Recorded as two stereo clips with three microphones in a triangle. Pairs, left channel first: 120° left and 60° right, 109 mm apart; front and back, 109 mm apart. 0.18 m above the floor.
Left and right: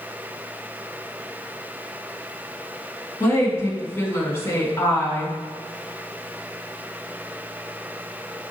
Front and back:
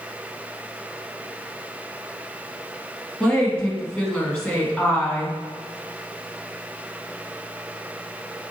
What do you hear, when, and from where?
3.2 s a woman speaking: 75° left, 1.7 m